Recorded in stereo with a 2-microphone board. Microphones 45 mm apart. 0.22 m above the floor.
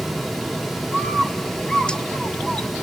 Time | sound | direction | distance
0.9 | a bird | 20° left (ahead or behind) | 0.6 m